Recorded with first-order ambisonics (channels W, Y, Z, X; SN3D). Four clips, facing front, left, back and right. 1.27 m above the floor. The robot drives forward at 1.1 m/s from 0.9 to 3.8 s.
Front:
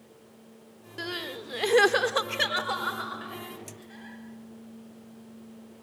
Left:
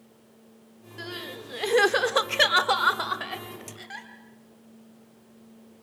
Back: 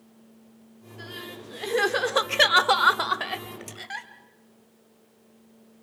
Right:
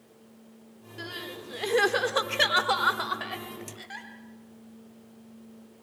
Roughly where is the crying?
Ahead.